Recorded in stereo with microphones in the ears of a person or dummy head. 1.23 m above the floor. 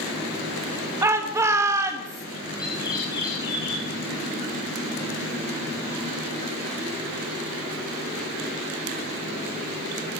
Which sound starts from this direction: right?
A shout, at 1.0 s.